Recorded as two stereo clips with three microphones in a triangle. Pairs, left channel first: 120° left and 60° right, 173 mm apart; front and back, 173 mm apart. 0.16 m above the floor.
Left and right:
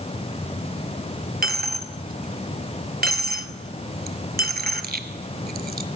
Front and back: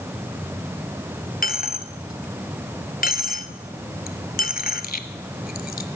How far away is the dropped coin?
About 0.7 m.